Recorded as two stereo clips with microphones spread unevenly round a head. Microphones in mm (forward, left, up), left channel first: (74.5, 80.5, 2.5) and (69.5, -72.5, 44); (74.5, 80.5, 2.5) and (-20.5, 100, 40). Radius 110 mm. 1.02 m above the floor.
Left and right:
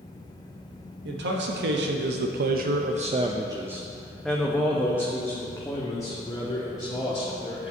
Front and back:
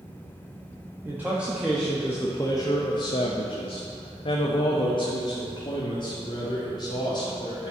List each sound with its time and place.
1.1 s a man speaking: 110° right, 1.2 m; by 7.7 s 25° left, 3 m